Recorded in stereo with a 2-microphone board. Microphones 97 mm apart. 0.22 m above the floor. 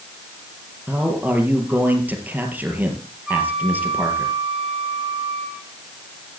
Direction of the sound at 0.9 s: 15° right (ahead or behind).